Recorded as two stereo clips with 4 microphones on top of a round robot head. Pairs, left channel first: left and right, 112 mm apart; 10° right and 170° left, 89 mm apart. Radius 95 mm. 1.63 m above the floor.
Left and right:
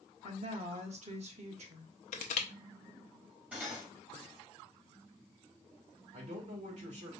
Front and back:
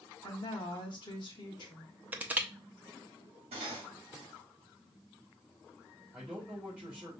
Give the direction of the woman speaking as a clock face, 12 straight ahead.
2 o'clock.